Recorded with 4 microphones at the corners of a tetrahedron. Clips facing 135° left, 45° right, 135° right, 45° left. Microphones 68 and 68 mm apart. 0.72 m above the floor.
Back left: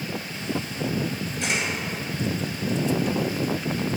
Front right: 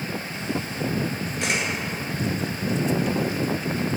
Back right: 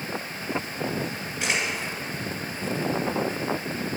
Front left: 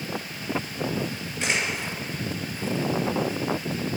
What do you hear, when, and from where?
1.4 s a camera shutter: 50° right, 2 m